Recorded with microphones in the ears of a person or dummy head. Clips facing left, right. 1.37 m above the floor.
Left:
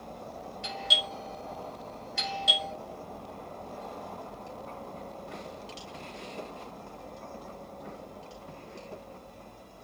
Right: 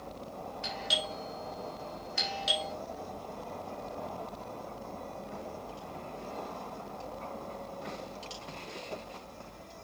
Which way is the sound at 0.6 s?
Centre (ahead or behind).